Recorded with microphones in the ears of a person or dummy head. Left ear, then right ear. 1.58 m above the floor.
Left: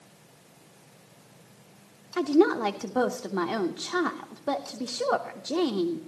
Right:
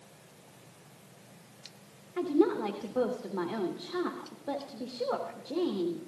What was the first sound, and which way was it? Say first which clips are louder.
A woman speaking: left 5 dB; 75° left (ahead or behind).